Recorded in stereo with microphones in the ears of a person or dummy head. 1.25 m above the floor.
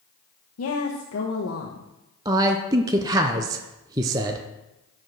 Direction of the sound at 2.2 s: 15° right (ahead or behind).